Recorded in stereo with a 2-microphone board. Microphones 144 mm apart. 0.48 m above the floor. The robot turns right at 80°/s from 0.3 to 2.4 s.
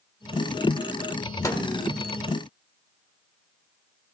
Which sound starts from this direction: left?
A microwave, at 1.4 s.